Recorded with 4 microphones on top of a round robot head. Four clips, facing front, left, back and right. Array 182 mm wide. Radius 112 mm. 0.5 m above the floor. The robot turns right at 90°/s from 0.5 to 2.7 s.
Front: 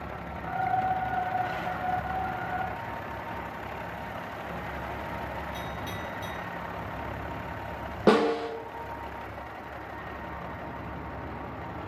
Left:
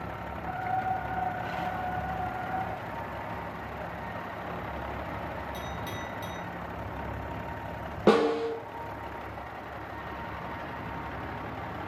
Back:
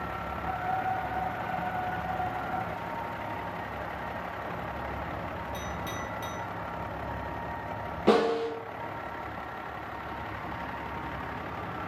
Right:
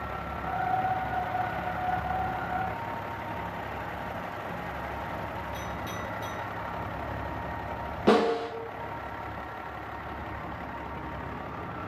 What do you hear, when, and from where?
5.5 s a clink: 125° left, 1.1 m
8.1 s a snare drum: 45° left, 1.2 m